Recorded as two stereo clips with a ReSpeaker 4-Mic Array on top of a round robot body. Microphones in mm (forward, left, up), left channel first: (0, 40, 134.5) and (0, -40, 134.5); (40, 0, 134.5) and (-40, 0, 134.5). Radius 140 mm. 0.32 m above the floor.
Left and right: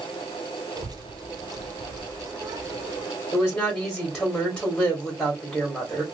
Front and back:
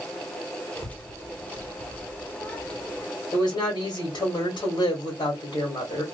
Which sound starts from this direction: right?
A child speaking, at 0.8 s.